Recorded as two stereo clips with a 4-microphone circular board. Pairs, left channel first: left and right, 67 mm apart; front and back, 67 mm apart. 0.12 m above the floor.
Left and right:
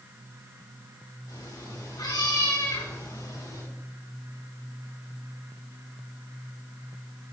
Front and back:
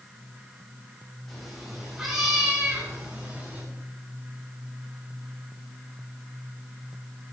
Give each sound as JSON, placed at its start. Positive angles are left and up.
{"t": 1.3, "sound": "a cat meowing", "azimuth_deg": 90, "distance_m": 6.5}